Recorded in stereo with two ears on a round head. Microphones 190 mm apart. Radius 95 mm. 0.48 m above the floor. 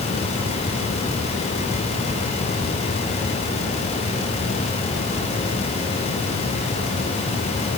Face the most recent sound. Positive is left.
No sound to turn to.